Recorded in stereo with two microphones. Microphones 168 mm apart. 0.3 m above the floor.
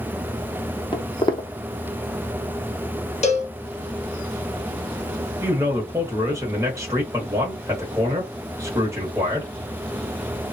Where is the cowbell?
40° left (ahead or behind), 0.7 m.